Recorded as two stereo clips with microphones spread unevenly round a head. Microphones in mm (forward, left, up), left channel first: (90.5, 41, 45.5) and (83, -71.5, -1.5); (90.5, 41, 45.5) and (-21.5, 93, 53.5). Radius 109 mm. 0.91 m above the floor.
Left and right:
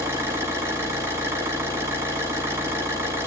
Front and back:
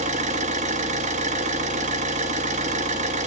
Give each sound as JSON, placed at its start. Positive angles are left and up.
{"t": 0.0, "sound": "an engine running", "azimuth_deg": -165, "distance_m": 1.3}